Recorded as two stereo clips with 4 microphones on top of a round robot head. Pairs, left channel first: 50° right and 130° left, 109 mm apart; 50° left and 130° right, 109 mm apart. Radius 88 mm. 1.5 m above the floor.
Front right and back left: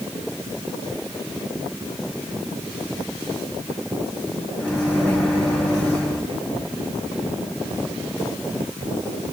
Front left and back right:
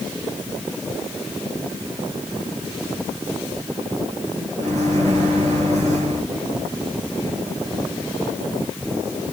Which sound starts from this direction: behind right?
A microwave, at 4.6 s.